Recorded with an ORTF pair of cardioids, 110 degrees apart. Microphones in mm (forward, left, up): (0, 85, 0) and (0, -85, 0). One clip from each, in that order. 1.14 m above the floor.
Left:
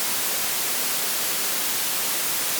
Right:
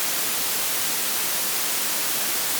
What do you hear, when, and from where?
Only background noise.